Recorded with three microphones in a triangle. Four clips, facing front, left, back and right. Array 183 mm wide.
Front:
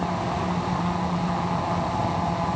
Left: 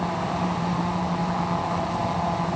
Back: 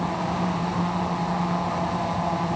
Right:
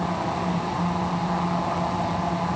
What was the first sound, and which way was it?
Only background noise.